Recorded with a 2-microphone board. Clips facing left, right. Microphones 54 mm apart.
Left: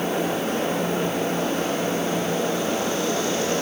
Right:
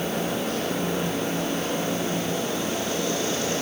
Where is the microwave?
No microwave in this recording.